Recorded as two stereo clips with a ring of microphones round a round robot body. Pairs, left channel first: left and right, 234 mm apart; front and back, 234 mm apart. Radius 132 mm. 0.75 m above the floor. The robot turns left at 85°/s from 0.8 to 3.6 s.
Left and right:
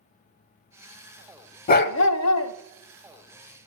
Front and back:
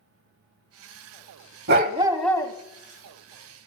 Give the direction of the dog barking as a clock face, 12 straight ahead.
7 o'clock.